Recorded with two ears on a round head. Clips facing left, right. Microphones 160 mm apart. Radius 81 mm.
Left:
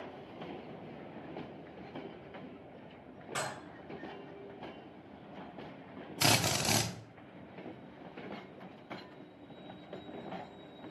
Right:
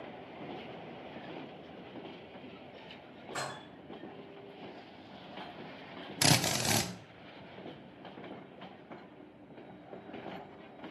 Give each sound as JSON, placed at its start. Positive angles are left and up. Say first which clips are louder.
{"t": 3.4, "sound": "dishes clattering", "louder": "left 1 dB", "side_deg": 35, "distance_m": 4.0}
{"t": 6.2, "sound": "a drill", "louder": "right 1 dB", "side_deg": -10, "distance_m": 0.6}